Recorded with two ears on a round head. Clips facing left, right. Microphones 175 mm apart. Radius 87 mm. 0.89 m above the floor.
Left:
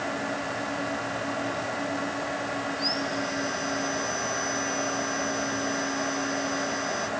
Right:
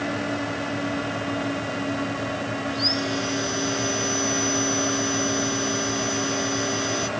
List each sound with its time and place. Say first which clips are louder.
2.7 s sawing: right 4 dB; 45° right (ahead or behind)